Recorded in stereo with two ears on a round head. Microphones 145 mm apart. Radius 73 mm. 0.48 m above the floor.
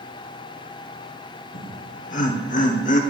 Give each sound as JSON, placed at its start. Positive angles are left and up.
{"t": 1.5, "sound": "laughter", "side_deg": 50, "distance_m": 1.3}